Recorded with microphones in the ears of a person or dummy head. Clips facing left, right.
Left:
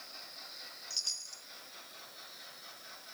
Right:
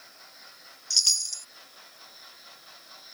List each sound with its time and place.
0.9 s a chime: 90° right